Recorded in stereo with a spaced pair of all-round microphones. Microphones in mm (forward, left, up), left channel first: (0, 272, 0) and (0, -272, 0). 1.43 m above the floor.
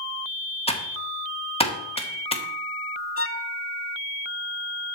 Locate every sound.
0.7 s typing on a keyboard: 10° left (ahead or behind), 1.5 m
3.2 s a violin: 25° left (ahead or behind), 0.8 m